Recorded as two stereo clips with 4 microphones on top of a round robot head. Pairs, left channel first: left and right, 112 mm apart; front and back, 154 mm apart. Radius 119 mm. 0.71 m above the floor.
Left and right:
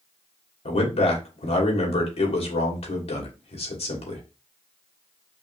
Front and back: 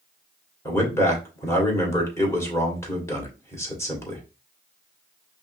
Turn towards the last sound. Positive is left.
turn(degrees=75)